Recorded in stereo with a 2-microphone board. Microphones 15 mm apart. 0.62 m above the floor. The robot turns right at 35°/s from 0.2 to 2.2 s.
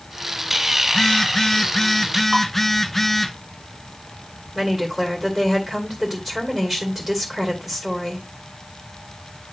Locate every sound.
0.9 s a phone buzzing: 115° left, 0.7 m; by 3.3 s 165° left, 0.7 m
2.3 s dishes clattering: 65° right (ahead or behind), 3.5 m
4.5 s a woman speaking: 25° right (ahead or behind), 2.5 m